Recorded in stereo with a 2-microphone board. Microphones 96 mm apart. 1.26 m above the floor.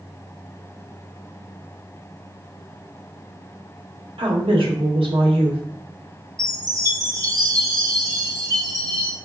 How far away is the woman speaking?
About 1.0 m.